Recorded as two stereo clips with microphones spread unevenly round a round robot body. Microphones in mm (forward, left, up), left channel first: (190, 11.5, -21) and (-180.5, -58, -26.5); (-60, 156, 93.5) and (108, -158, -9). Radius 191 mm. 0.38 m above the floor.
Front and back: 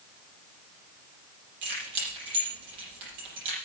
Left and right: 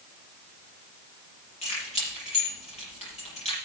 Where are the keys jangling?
170° right, 7 m.